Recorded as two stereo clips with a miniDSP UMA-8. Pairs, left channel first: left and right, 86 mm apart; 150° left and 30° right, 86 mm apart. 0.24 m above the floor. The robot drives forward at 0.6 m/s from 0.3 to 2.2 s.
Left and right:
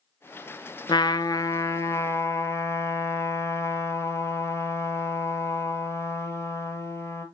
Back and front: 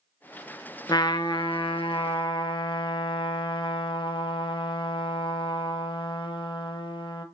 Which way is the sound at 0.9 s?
115° left.